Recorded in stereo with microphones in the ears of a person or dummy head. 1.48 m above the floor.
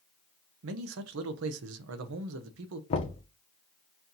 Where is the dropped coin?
I don't hear a dropped coin.